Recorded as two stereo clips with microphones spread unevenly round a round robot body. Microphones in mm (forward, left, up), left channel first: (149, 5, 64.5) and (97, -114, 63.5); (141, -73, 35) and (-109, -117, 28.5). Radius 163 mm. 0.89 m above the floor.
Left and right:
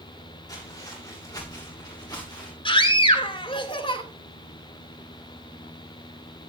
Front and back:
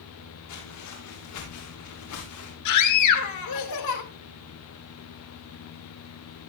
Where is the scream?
15° left, 2.5 m.